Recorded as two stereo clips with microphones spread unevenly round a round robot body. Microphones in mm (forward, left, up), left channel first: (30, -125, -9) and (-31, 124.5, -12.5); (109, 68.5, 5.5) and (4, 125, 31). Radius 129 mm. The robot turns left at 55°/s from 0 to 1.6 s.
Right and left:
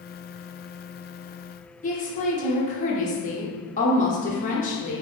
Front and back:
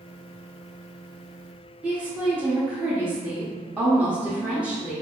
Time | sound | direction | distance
1.8 | a woman speaking | 120° right | 0.9 m